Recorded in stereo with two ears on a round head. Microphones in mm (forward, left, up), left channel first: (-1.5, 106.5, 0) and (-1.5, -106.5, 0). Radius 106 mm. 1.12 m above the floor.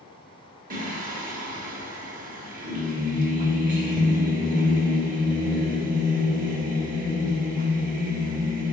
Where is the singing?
35° right (ahead or behind), 1.1 m.